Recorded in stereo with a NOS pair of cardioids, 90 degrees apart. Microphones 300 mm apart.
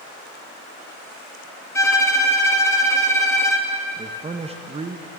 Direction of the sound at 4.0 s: 20° right.